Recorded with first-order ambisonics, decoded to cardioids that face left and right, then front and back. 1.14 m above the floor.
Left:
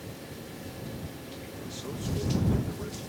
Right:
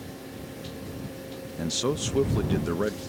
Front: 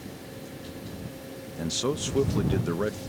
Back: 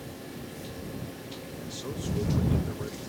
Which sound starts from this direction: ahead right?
A man speaking, at 1.6 s.